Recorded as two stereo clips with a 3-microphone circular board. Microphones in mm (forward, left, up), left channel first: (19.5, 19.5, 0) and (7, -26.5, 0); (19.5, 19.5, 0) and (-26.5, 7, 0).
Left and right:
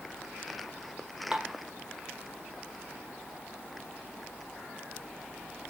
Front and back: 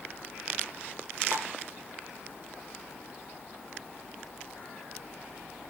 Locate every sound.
1.3 s dishes clattering: 175° right, 1.2 m